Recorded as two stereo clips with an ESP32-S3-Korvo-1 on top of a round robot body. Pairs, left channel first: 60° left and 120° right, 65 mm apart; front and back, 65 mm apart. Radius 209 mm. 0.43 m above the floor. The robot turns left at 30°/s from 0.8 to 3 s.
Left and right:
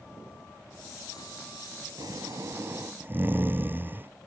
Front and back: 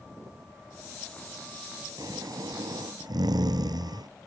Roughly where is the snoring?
Behind right.